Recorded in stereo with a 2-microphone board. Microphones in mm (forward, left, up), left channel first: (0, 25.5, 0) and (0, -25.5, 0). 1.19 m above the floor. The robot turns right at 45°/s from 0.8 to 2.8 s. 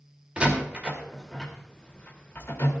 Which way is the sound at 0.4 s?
25° right (ahead or behind).